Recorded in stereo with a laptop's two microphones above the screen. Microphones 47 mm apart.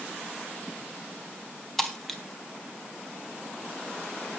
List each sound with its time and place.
1.8 s breaking glass: 5° left (ahead or behind), 1.9 m